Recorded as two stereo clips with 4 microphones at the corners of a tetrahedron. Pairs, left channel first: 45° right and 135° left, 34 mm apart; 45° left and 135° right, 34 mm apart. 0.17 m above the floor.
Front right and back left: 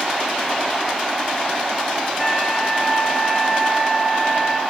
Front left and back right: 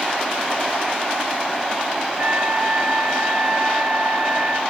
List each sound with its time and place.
2.2 s a trumpet: 120° right, 3 m